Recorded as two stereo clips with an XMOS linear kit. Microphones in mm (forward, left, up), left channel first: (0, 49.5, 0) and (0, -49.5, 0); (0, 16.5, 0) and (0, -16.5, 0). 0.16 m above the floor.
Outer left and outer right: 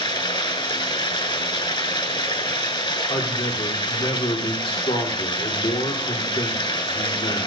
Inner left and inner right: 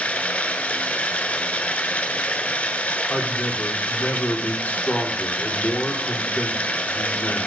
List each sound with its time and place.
0.0 s running water: 55° left (ahead or behind), 1.2 m
3.1 s a man speaking: 65° left (ahead or behind), 4.5 m